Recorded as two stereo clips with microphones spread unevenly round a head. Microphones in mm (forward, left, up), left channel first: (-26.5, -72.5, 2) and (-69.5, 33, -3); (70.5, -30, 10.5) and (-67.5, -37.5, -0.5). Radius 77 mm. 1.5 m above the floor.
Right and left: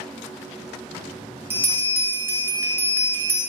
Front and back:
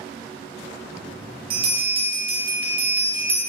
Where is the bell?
170° left, 0.6 m.